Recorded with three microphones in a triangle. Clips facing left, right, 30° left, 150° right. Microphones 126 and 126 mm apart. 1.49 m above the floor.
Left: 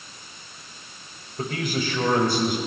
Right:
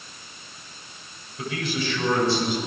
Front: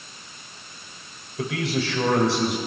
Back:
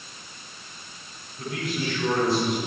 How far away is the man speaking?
About 7.5 m.